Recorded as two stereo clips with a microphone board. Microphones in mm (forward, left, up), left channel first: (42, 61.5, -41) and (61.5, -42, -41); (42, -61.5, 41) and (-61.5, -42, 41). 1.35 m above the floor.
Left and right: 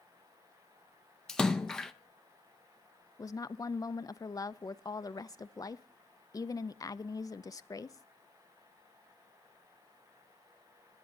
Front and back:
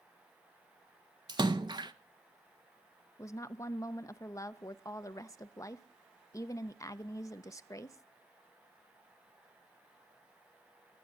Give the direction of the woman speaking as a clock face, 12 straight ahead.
11 o'clock.